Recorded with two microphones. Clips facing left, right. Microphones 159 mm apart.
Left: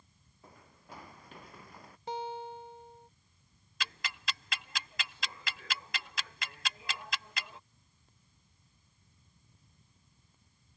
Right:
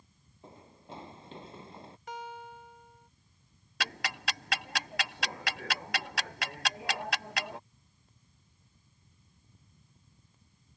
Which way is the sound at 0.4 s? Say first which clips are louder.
Right 5 dB; 25° right (ahead or behind).